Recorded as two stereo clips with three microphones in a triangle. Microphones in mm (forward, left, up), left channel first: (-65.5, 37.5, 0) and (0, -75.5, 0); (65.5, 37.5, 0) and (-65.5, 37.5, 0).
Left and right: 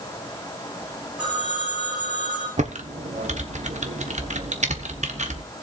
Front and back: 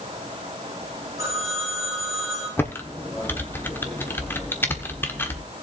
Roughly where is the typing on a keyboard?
Right.